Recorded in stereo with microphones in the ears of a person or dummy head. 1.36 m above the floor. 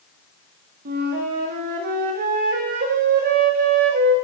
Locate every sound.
0.8 s a flute: 45° right (ahead or behind), 1.4 m